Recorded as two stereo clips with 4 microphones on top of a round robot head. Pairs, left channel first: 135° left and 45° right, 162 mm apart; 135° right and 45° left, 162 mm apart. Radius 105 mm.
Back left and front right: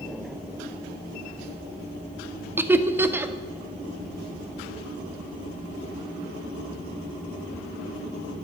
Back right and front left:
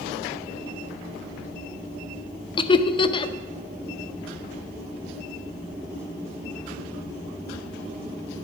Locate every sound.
2.6 s laughter: 110° right, 0.7 m